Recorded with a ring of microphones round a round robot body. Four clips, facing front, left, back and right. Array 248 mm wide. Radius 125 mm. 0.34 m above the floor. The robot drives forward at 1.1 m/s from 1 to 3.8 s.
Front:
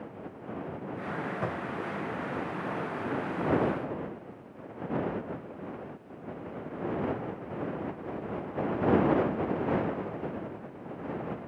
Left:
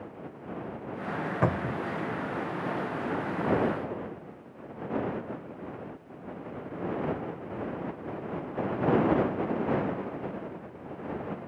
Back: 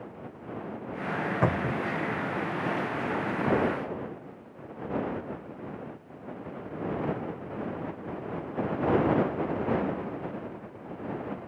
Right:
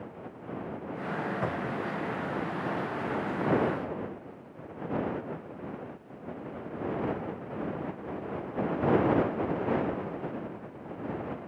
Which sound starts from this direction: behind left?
A cupboard door, at 1.4 s.